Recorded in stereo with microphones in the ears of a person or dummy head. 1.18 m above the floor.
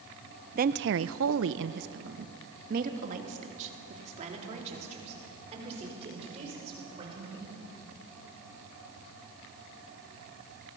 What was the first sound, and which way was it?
A woman speaking, 45° right (ahead or behind).